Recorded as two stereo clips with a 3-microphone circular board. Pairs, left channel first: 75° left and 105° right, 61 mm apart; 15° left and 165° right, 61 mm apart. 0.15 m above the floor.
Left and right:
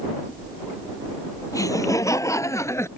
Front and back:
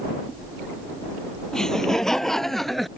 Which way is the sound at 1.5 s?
95° left.